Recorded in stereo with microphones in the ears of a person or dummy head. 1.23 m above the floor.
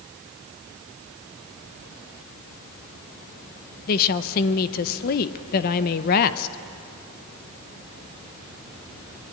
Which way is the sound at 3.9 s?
55° left (ahead or behind).